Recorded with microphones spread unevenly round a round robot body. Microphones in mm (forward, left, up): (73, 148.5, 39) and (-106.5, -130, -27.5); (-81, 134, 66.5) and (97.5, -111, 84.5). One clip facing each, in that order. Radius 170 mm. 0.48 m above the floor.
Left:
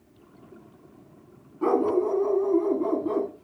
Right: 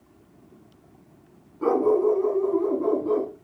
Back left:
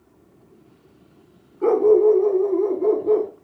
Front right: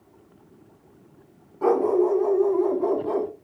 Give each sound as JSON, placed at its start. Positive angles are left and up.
{"t": 1.6, "sound": "a dog barking", "azimuth_deg": -30, "distance_m": 1.1}